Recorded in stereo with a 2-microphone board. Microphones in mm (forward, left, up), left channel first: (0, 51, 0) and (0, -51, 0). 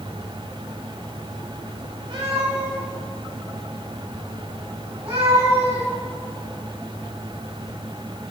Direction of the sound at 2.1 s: 55° right (ahead or behind).